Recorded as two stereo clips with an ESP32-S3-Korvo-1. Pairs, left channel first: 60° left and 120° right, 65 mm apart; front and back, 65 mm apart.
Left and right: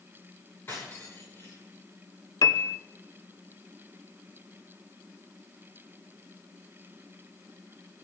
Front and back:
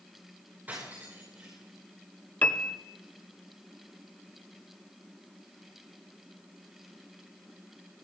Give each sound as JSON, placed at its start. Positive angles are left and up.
{"t": 0.7, "sound": "cutlery clinking", "azimuth_deg": 115, "distance_m": 10.0}
{"t": 2.4, "sound": "a piano", "azimuth_deg": 65, "distance_m": 0.9}